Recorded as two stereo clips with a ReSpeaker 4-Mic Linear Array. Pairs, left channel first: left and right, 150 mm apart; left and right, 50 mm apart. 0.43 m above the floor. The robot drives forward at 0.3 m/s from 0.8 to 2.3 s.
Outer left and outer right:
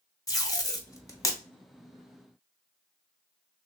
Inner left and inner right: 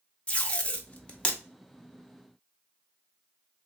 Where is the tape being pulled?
25° left (ahead or behind), 0.7 m; by 1.4 s 20° left (ahead or behind), 0.9 m.